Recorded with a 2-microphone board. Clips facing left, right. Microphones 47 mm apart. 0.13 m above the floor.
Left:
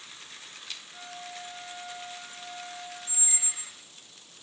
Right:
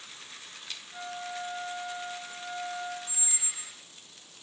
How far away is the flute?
About 2 m.